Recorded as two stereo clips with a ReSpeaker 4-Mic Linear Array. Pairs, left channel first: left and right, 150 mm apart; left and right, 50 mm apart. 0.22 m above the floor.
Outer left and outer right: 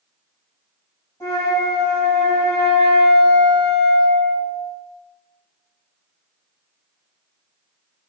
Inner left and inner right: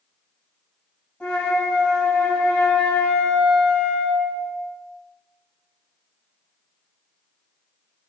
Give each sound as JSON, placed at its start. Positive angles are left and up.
{"t": 1.2, "sound": "a flute", "side_deg": 25, "distance_m": 1.3}